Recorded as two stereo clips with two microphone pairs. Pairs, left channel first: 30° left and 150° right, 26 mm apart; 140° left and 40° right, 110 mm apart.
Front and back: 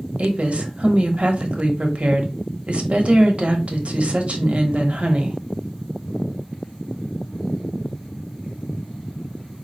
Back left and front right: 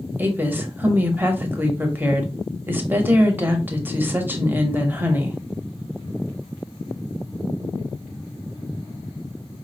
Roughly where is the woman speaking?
Behind right.